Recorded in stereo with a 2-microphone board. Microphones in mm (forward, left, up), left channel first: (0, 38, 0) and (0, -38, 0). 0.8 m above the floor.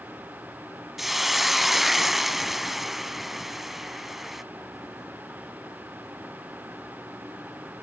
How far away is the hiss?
About 0.8 m.